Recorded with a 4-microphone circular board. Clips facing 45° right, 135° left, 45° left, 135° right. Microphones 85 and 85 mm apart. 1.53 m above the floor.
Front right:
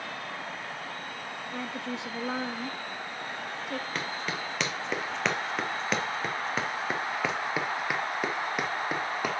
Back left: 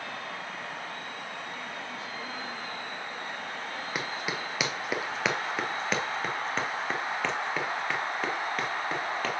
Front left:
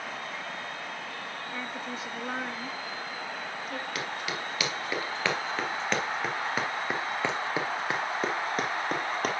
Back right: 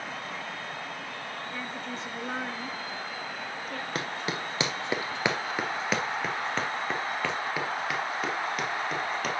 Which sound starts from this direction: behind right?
Running footsteps, at 4.0 s.